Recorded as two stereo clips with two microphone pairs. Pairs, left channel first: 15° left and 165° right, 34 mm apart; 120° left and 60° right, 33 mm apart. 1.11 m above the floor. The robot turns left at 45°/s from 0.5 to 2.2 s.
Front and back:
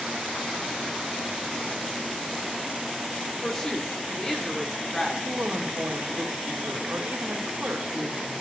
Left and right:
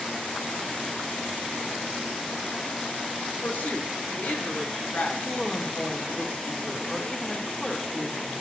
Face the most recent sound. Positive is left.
turn(degrees=-165)